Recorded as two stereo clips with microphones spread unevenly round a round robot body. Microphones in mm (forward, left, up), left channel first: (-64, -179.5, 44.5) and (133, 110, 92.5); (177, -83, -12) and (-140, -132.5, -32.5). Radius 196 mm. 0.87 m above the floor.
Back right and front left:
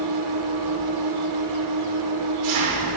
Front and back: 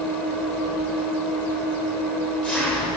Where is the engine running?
95° left, 2.5 m.